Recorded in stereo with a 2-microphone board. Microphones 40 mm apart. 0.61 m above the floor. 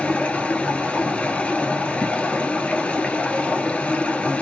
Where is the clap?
No clap in this recording.